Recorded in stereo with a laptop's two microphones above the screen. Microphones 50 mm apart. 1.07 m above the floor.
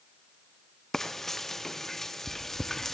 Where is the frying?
10° left (ahead or behind), 0.6 m.